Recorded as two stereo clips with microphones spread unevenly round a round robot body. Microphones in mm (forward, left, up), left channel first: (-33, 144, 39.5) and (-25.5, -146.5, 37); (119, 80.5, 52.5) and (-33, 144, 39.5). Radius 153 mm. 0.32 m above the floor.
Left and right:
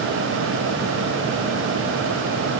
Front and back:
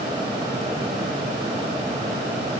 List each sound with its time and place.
Only background noise.